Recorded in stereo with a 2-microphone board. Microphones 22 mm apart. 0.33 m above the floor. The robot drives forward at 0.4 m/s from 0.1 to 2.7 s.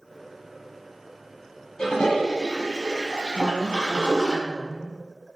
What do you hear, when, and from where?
1.8 s a toilet flushing: 50° left (ahead or behind), 1.4 m; by 4.3 s 60° left (ahead or behind), 1.2 m
3.3 s a woman speaking: 25° right (ahead or behind), 1.5 m